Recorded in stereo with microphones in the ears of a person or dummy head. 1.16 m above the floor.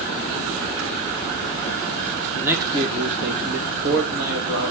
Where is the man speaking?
5° right (ahead or behind), 0.9 m; by 4.7 s 65° right (ahead or behind), 3 m.